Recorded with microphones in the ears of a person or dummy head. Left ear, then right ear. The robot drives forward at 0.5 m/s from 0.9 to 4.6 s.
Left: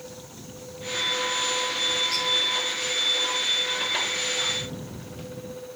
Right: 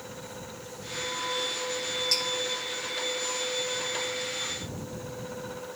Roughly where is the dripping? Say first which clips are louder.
Even; right.